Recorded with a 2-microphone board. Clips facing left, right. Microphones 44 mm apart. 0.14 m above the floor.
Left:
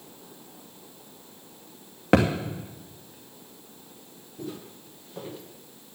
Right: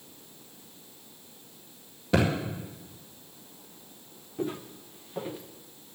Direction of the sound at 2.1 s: 80° left.